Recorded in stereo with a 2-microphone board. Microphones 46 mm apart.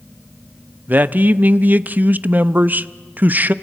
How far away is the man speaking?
About 0.6 m.